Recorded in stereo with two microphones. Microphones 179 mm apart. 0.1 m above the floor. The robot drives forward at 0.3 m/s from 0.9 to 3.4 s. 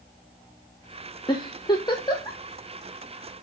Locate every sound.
1.3 s a giggle: 25° left (ahead or behind), 1.8 m; by 2.4 s 20° left (ahead or behind), 2 m